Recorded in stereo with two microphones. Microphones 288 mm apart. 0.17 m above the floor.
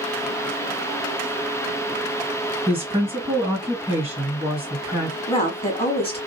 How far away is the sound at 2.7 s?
About 2 m.